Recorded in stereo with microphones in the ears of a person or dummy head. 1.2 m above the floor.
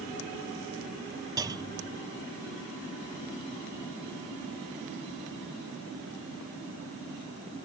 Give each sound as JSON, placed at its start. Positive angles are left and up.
{"t": 1.4, "sound": "a clunk", "side_deg": -20}